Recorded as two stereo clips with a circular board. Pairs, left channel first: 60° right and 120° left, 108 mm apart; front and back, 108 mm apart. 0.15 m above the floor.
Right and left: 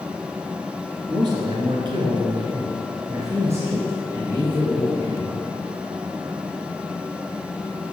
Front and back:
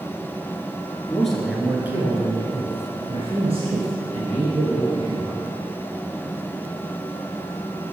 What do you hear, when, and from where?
1.1 s a man speaking: 85° left, 2.5 m; by 5.4 s 160° right, 5 m